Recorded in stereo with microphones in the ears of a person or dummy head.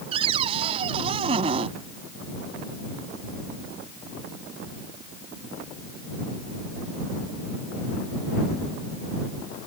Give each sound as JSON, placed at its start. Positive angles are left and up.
{"t": 0.1, "sound": "a cupboard door", "side_deg": -35}